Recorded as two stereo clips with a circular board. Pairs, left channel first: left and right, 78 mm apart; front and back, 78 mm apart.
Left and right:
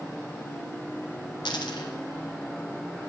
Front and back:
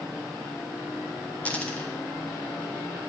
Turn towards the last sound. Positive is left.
turn(degrees=75)